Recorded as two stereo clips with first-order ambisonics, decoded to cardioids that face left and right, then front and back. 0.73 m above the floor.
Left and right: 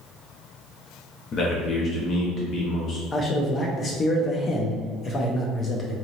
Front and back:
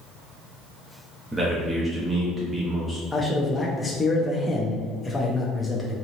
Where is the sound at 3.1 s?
70° left, 0.6 m.